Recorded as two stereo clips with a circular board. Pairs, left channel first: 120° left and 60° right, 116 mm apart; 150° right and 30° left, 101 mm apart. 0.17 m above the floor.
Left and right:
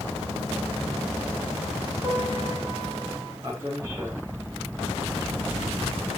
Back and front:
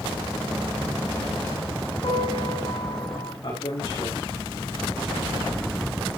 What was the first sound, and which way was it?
A piano, 125° right.